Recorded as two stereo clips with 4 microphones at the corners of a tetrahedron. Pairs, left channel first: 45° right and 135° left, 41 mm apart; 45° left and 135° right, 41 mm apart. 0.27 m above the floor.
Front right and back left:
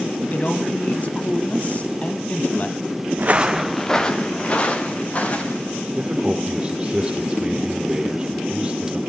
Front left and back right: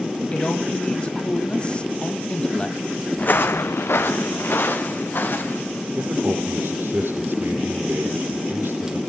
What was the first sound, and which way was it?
A man speaking, 5° right.